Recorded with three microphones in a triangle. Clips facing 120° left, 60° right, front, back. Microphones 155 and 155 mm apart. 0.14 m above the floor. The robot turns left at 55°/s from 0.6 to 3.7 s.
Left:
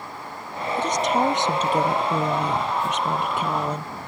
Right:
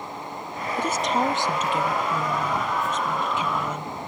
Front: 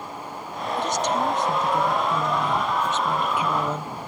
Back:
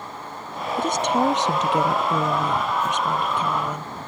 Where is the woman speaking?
135° right; by 3.9 s 65° left.